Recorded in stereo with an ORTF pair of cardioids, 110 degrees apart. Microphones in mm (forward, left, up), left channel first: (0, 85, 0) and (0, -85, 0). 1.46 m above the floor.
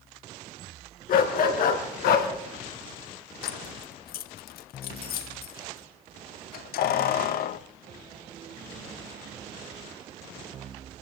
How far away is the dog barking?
About 4.5 m.